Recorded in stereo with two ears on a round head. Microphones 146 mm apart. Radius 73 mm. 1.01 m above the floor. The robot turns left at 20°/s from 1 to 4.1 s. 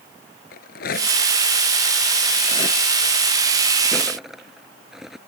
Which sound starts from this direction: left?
A rattle, at 0.5 s.